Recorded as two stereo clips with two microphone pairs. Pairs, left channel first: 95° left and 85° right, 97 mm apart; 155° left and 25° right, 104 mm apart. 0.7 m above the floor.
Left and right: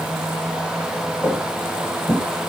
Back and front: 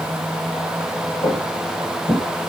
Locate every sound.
1.2 s footsteps: 170° right, 1.5 m; by 2.2 s 155° right, 1.8 m